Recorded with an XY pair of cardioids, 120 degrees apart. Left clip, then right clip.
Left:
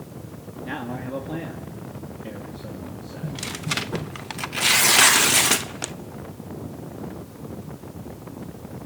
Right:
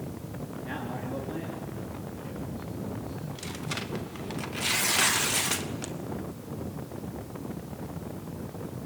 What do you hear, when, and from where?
0.6 s a man speaking: 25° left, 3 m; by 3.4 s 75° left, 3.5 m
3.2 s tearing paper: 50° left, 0.7 m